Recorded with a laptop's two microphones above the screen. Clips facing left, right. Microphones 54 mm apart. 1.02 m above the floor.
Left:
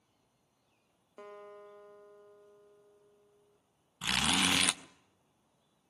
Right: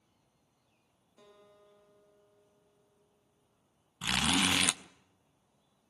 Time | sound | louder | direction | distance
1.2 | a guitar | left 11 dB | 50° left (ahead or behind) | 0.7 m
4.0 | a zipper | right 1 dB | 5° right (ahead or behind) | 0.5 m